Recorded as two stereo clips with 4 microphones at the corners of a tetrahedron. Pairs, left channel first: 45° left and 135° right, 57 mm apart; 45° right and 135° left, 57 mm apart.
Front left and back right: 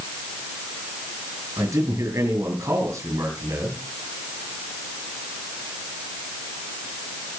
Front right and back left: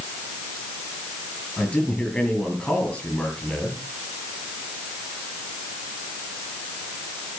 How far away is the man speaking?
About 7 m.